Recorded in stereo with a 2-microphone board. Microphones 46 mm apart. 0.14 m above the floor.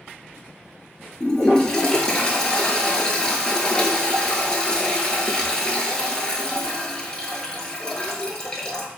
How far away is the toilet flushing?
About 0.7 m.